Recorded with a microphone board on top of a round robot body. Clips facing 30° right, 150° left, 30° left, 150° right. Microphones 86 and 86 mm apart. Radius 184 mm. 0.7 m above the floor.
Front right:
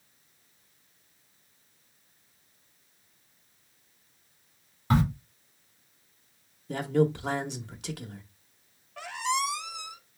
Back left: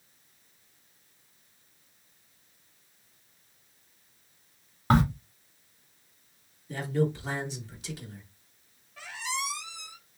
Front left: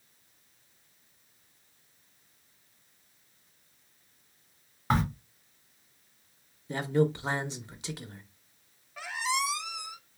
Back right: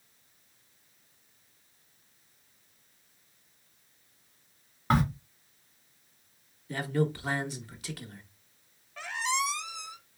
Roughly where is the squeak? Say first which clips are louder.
Front right 6 dB, even; ahead right.